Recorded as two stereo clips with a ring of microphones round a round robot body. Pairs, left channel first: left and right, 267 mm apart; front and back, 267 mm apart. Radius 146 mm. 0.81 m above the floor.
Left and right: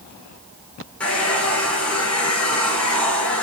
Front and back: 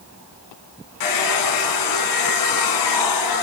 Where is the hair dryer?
5° left, 2.5 m.